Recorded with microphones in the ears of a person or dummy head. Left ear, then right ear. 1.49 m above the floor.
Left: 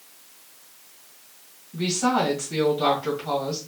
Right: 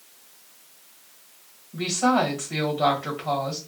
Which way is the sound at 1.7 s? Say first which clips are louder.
Right 1 dB; 35° right (ahead or behind).